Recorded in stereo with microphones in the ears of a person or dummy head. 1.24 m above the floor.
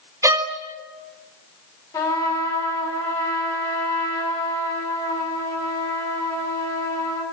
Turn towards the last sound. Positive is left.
turn(degrees=20)  # may be behind; listen again after turning